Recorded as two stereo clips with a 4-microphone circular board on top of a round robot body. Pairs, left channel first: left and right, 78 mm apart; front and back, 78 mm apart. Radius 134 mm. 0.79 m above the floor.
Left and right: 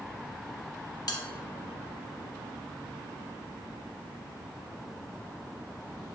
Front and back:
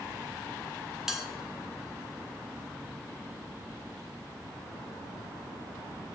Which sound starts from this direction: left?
A bell, at 1.1 s.